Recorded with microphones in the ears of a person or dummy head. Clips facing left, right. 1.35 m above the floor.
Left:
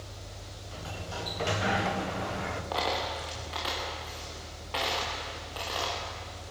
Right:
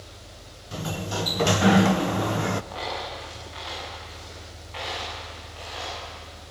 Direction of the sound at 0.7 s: 60° right (ahead or behind).